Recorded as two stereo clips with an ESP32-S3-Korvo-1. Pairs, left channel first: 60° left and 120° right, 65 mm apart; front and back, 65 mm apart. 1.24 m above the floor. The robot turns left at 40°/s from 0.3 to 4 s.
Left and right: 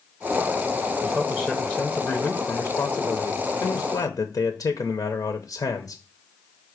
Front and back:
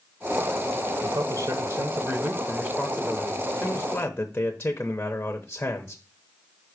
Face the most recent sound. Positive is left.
turn(degrees=65)